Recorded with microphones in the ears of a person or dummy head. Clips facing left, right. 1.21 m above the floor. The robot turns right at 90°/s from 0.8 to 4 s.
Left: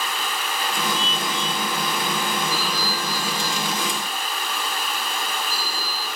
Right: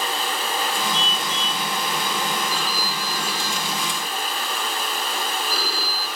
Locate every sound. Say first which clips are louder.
0.9 s a car horn: left 1 dB; 160° right; by 1.7 s 95° right
2.5 s a phone ringing: left 1 dB; 165° left; by 6.1 s 60° right